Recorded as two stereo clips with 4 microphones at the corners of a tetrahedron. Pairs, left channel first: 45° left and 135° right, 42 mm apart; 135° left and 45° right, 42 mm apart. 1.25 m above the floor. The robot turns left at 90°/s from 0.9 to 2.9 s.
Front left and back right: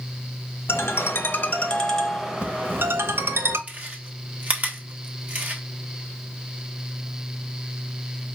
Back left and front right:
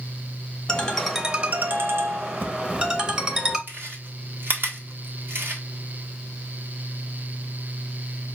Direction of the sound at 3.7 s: 80° right.